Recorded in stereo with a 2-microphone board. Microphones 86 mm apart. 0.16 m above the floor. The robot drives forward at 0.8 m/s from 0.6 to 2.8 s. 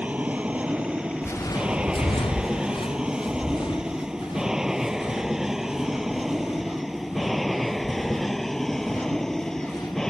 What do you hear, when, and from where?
0.0 s an aircraft: 15° right (ahead or behind); by 10.1 s 5° left (ahead or behind)
1.2 s footsteps: 30° left (ahead or behind); by 10.0 s 50° left (ahead or behind)